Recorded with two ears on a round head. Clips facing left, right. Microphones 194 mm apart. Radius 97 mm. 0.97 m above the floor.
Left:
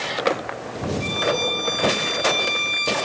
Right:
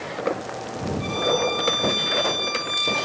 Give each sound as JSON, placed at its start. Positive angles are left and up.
{"t": 1.0, "sound": "a violin", "side_deg": 50, "distance_m": 2.5}